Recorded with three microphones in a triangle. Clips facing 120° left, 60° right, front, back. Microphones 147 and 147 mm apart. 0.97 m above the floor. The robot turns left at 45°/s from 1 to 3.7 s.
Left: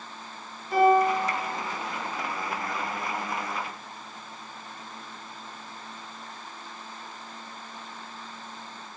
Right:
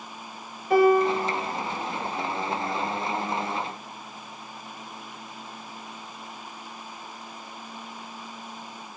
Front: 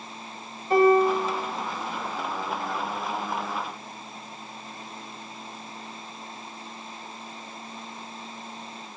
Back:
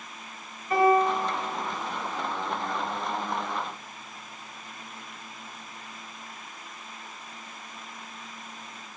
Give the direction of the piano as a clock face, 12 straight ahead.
2 o'clock.